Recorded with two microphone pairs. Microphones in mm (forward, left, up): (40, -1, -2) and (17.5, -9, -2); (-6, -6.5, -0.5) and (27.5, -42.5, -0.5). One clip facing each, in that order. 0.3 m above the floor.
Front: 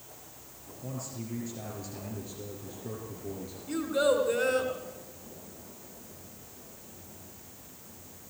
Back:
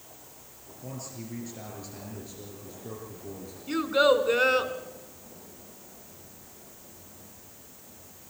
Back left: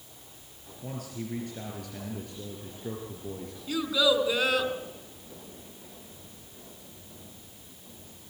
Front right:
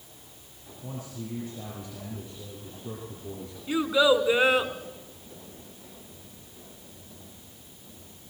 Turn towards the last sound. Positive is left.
turn(degrees=-110)